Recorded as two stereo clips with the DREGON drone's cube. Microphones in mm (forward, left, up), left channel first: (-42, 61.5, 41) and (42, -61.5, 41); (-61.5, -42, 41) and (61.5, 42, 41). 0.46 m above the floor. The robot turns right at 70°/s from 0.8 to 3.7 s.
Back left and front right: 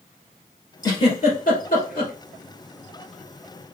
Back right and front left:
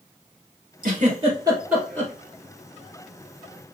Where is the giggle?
60° left, 2 m; by 2.1 s 150° left, 2 m.